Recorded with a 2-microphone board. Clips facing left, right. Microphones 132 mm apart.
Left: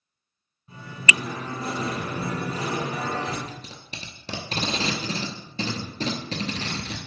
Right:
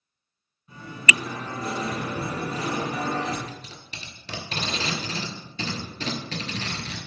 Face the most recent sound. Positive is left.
turn(degrees=35)  # may be behind; listen again after turning